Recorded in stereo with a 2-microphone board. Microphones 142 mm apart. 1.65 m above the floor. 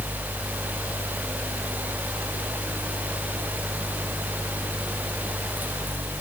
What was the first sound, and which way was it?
Only background noise.